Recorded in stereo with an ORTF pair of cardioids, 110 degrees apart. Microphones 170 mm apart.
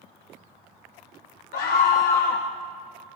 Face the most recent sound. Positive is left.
turn(degrees=70)